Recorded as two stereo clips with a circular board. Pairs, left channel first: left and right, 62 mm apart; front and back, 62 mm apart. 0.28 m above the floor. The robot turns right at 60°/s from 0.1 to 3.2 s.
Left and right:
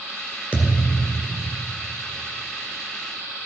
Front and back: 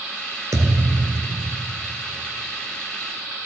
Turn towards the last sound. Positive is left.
turn(degrees=-55)